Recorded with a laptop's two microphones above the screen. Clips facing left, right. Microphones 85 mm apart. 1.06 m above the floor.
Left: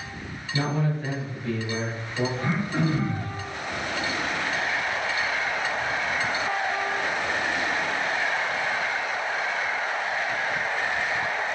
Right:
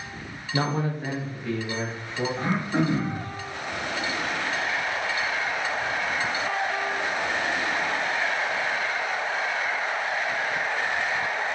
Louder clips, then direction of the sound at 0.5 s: Even; 50° right (ahead or behind).